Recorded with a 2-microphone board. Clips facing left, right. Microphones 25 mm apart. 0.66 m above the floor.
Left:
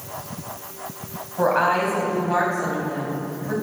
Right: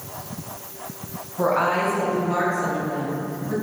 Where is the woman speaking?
80° left, 3.5 m.